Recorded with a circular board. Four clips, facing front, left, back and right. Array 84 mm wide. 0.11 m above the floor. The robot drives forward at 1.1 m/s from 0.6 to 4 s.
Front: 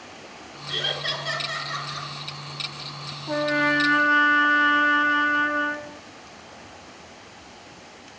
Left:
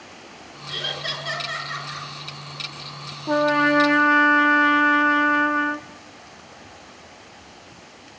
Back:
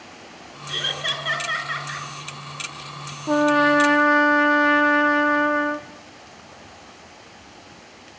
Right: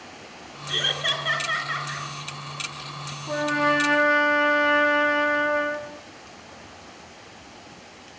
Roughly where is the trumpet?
Behind left.